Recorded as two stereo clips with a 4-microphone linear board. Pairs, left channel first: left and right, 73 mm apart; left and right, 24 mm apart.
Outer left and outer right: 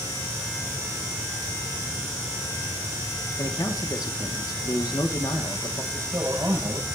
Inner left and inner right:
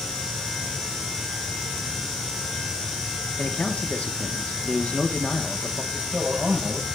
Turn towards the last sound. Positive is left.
turn(degrees=-45)  # may be behind; listen again after turning